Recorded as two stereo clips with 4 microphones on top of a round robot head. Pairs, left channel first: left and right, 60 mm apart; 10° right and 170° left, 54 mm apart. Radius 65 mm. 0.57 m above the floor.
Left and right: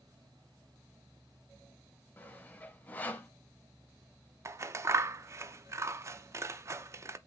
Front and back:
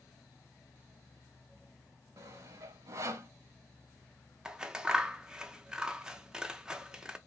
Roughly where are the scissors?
Behind right.